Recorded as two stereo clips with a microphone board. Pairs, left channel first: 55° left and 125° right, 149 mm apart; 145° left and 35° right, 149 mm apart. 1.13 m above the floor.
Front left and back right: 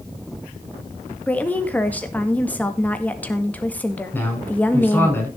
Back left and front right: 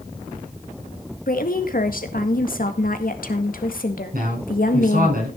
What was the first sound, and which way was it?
A woman speaking, 135° left.